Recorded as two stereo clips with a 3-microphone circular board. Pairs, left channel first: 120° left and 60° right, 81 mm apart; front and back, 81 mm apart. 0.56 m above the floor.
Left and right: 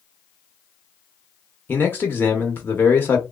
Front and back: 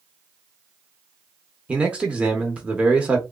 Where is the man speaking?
130° left, 0.6 m.